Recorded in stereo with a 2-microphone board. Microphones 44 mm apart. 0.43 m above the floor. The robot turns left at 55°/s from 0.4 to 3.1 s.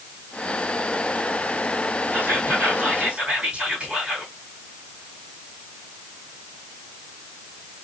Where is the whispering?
95° right, 1.9 m; by 4.3 s 150° right, 1.9 m.